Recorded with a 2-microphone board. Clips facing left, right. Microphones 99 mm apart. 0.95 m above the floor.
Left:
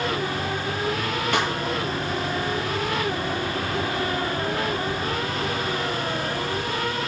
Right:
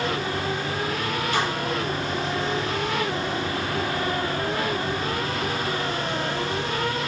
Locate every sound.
1.3 s a snare drum: 65° left (ahead or behind), 2.5 m